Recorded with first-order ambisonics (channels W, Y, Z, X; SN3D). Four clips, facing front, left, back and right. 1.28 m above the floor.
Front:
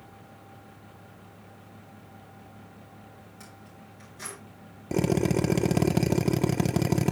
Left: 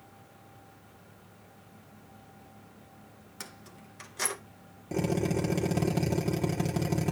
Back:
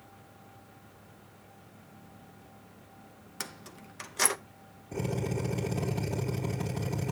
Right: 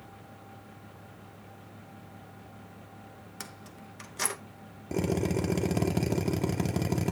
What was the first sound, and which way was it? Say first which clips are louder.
Keys jangling: even, back 10 dB; 175° right.